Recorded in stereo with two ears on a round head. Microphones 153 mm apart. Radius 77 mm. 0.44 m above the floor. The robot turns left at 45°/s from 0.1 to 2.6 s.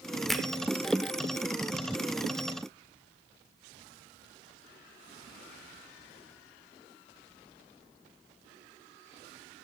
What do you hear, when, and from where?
0.3 s a finger snap: centre (ahead or behind), 0.6 m; by 0.5 s 5° right (ahead or behind), 0.6 m